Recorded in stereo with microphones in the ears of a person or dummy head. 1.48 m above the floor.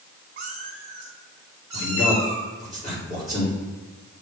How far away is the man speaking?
About 2.5 m.